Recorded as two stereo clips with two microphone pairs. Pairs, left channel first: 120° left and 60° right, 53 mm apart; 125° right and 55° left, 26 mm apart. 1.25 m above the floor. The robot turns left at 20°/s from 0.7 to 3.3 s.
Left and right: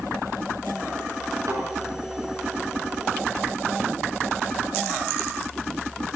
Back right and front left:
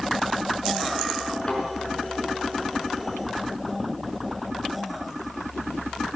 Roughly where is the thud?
Right.